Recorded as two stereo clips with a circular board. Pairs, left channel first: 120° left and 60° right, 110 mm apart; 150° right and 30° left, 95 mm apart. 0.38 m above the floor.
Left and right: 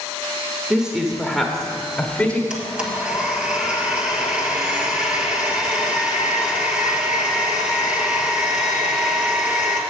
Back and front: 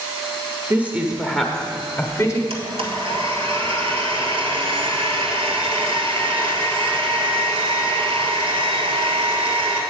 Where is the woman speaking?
5° left, 0.9 m; by 2.4 s 170° right, 1.0 m.